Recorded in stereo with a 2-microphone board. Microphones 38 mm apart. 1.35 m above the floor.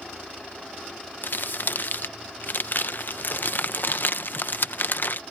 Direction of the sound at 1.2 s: 60° left (ahead or behind).